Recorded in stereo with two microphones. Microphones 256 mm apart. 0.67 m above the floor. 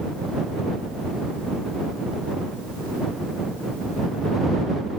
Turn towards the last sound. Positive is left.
No sound to turn to.